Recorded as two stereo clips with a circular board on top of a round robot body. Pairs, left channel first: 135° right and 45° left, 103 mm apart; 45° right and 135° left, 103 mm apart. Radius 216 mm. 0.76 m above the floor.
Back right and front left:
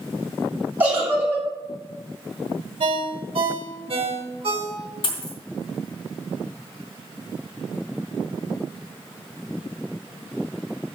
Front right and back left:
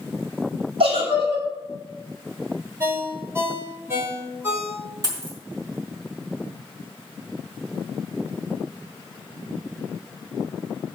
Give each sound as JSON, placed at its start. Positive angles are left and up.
{"t": 0.8, "sound": "a giggle", "azimuth_deg": 120, "distance_m": 4.5}
{"t": 2.8, "sound": "a ringtone", "azimuth_deg": 70, "distance_m": 2.5}
{"t": 5.0, "sound": "a dropped coin", "azimuth_deg": -170, "distance_m": 3.0}